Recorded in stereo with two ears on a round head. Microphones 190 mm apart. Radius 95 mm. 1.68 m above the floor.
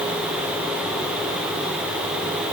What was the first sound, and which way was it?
Only background noise.